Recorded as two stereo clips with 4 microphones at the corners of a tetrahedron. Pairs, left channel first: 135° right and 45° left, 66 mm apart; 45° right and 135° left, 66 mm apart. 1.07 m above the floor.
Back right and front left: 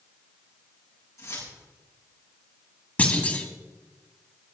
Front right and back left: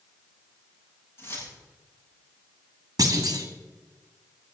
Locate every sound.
1.2 s keys jangling: 100° right, 7 m
3.0 s a clunk: 160° left, 1.8 m